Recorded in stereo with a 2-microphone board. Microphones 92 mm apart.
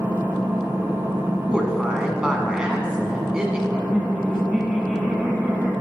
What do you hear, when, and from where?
0.0 s an engine running: 20° right (ahead or behind), 1.3 m
1.5 s a woman speaking: 10° right (ahead or behind), 1.0 m
3.7 s laughter: 5° right (ahead or behind), 1.4 m